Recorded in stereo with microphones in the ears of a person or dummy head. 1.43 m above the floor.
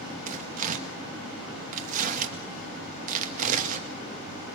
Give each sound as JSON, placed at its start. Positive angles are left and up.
{"t": 0.3, "sound": "tearing paper", "side_deg": -40, "distance_m": 1.9}